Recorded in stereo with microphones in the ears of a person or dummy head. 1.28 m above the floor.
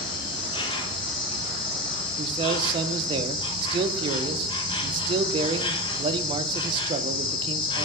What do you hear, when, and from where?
0.0 s an insect: 25° left (ahead or behind), 0.8 m
2.2 s a man speaking: 30° right (ahead or behind), 0.7 m